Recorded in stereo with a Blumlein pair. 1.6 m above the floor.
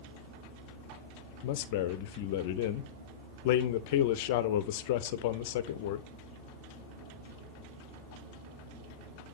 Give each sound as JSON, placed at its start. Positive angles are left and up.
{"t": 1.4, "sound": "a man speaking", "azimuth_deg": 50, "distance_m": 0.7}